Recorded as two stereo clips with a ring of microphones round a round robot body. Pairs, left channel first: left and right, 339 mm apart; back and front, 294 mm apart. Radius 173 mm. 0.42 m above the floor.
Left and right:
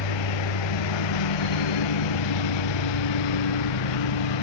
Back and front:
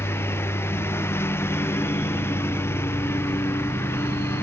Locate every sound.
0.0 s a lawn mower: 100° left